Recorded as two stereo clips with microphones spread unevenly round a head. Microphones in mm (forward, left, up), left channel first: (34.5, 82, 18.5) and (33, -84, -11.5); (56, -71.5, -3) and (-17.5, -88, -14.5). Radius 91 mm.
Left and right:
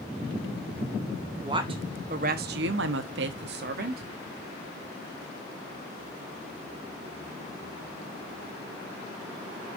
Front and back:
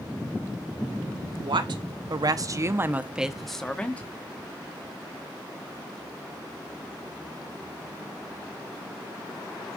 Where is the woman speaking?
160° right, 1.5 m; by 4.0 s 60° right, 1.4 m.